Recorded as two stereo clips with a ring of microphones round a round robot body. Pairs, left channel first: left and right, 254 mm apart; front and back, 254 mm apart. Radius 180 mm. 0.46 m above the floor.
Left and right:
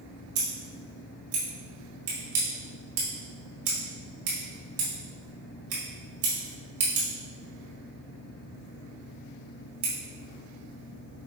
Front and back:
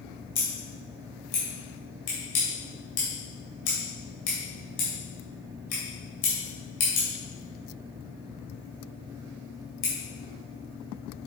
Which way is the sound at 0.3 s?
50° right.